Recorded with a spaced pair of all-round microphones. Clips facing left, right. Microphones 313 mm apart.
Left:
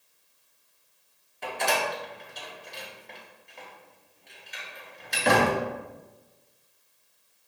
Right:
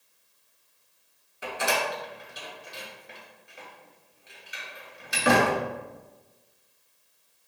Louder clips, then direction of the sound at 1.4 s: Even; 10° right (ahead or behind).